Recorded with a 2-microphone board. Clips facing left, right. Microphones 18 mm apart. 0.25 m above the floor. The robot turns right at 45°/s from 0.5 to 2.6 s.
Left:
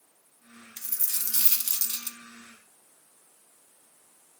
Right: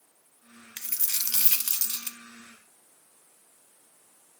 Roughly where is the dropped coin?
Behind right.